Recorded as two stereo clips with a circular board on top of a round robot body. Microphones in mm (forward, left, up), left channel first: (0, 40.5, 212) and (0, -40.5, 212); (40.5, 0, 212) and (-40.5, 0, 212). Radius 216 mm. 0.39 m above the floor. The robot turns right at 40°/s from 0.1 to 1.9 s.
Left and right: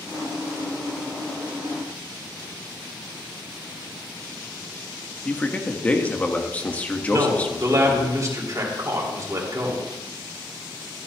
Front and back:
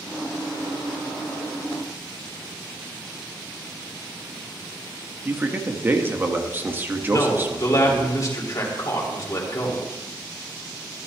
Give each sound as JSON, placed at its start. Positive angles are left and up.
{"t": 5.2, "sound": "a man speaking", "azimuth_deg": 145, "distance_m": 1.5}
{"t": 7.1, "sound": "a man speaking", "azimuth_deg": -45, "distance_m": 3.0}